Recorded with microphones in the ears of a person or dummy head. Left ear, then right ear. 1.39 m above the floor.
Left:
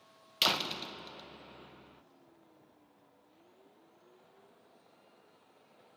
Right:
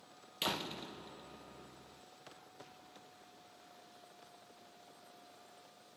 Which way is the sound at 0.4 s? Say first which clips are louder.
Left 8 dB; 40° left (ahead or behind).